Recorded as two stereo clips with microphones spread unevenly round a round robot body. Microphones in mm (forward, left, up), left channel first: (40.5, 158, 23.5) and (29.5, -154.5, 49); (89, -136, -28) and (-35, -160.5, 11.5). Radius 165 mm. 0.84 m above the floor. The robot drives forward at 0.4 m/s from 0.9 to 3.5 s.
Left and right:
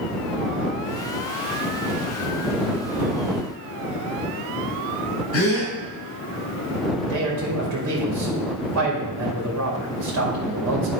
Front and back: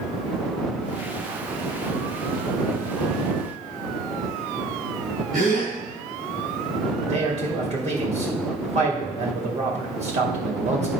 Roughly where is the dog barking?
No dog barking in this recording.